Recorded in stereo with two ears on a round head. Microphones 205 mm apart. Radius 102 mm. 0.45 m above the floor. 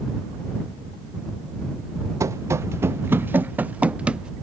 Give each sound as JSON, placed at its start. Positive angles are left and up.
{"t": 2.2, "sound": "running footsteps", "side_deg": -15}